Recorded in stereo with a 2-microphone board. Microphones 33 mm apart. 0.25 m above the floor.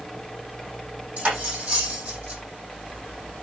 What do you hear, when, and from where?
1.2 s cutlery clinking: 45° right (ahead or behind), 6.5 m